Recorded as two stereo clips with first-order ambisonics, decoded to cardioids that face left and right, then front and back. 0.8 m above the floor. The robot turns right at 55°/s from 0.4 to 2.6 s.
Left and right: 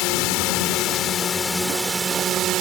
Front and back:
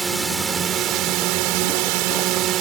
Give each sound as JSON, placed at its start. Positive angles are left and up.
{"t": 0.0, "sound": "a drone", "azimuth_deg": 105}